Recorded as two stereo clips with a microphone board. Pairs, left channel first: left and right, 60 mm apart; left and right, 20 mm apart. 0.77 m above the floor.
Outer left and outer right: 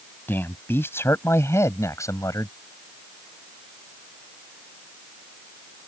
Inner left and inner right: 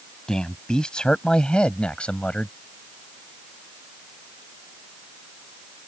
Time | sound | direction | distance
0.3 | a man speaking | 35° left (ahead or behind) | ?